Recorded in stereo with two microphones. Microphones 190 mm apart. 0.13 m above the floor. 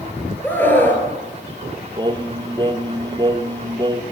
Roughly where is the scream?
Centre.